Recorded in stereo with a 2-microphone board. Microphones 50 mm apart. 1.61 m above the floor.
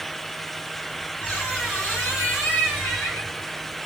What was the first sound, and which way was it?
A squeak, 20° left (ahead or behind).